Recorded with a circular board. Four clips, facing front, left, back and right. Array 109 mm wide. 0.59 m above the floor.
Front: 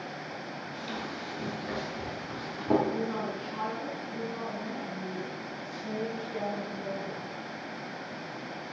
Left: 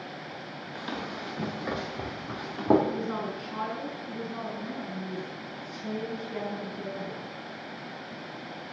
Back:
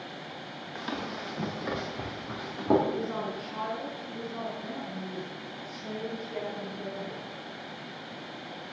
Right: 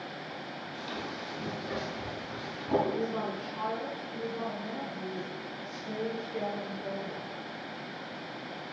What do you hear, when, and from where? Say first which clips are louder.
0.8 s running footsteps: left 4 dB, back 4 dB; 145° left, 4 m; by 2.8 s 100° left, 4 m
2.9 s a woman speaking: even, even; 80° left, 6.5 m